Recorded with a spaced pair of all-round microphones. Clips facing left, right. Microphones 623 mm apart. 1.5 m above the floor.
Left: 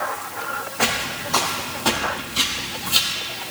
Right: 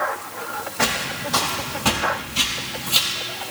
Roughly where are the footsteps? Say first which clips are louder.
Even; right.